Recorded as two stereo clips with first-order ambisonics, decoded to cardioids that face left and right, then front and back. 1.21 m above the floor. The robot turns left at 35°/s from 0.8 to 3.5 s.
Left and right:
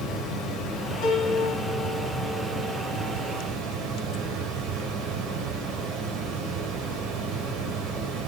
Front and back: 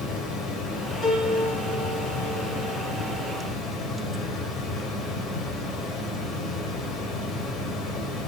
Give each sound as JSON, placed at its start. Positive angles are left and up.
{"t": 0.0, "sound": "running water", "azimuth_deg": 40, "distance_m": 3.0}
{"t": 1.0, "sound": "a piano", "azimuth_deg": 60, "distance_m": 4.0}